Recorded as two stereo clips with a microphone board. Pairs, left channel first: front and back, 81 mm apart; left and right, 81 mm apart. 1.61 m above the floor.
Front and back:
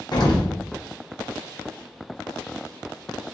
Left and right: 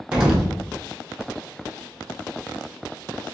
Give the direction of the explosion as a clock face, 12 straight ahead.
12 o'clock.